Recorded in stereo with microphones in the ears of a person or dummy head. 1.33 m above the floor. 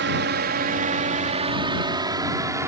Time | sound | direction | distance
0.0 | a drone | 50° right (ahead or behind) | ?